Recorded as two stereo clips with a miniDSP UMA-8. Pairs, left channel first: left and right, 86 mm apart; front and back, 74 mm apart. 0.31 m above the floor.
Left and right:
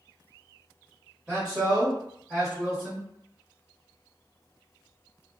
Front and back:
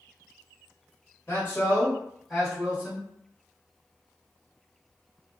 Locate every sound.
1.3 s a man speaking: 25° right, 1.4 m; by 3.1 s 175° left, 1.4 m